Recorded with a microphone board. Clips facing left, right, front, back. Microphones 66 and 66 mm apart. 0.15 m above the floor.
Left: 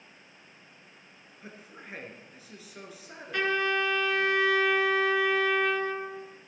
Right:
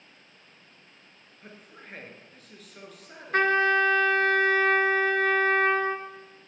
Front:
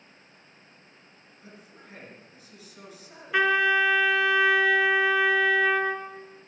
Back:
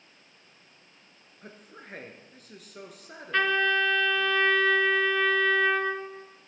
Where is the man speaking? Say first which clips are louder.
Left 1 dB, back 3 dB; 175° left, 1.8 m.